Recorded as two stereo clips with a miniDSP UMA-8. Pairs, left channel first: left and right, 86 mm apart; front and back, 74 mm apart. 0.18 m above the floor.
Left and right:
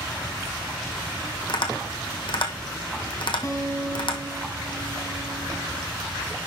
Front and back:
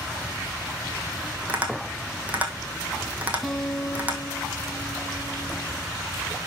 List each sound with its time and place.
1.5 s tapping: 110° left, 1.8 m
3.4 s a guitar: 85° left, 1.4 m